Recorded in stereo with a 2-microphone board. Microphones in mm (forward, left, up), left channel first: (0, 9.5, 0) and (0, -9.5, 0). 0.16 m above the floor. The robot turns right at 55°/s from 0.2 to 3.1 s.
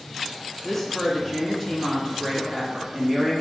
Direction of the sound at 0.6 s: 135° left.